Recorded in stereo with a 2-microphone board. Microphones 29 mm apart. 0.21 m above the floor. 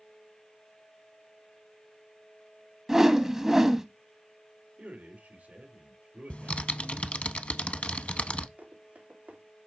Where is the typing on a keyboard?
45° left (ahead or behind), 0.6 m.